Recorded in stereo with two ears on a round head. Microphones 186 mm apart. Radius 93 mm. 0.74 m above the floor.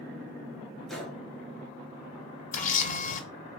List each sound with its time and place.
0.9 s a gunshot: centre (ahead or behind), 2 m
2.5 s a camera shutter: 40° left (ahead or behind), 1.3 m